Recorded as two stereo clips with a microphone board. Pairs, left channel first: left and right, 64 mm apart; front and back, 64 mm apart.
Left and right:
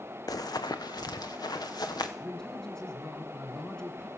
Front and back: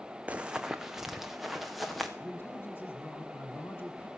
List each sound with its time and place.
0.3 s running footsteps: 110° left, 0.5 m; by 2.1 s 90° left, 2 m
2.2 s a man speaking: 15° left, 1.8 m